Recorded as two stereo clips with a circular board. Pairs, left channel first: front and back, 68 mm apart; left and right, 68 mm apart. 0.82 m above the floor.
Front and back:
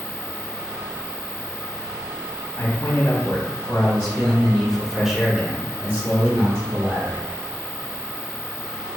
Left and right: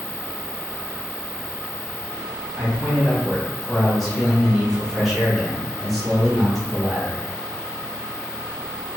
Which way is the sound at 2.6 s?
5° right.